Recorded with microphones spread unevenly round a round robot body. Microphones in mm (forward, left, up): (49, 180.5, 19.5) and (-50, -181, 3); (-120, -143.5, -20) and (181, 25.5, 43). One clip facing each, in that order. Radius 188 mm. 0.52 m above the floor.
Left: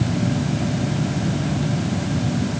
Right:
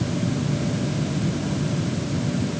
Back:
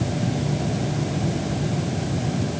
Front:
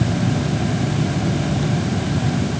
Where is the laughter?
No laughter in this recording.